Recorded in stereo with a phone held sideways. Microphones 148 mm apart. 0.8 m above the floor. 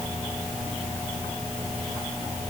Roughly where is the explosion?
I don't hear an explosion.